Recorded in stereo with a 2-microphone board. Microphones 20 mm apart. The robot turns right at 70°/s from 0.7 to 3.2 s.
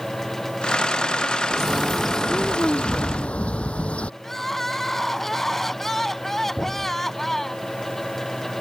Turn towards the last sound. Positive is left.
turn(degrees=60)  # may be behind; listen again after turning